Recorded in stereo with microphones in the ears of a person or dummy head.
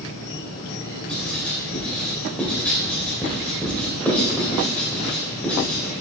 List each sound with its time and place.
0.0 s an insect: 60° left (ahead or behind), 1.3 m
1.1 s writing: centre (ahead or behind), 3.5 m